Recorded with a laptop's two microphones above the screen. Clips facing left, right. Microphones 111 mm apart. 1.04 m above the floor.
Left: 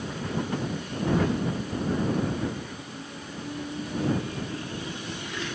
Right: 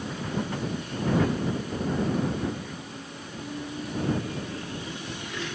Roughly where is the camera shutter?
No camera shutter in this recording.